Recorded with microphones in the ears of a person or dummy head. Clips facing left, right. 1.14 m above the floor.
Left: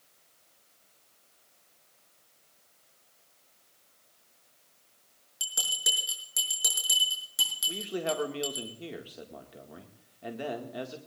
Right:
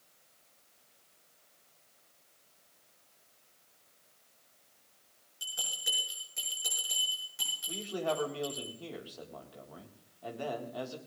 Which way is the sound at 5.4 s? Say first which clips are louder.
Left 4 dB; 80° left.